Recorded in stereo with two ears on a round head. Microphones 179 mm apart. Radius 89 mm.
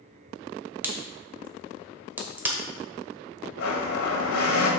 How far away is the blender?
About 1.7 m.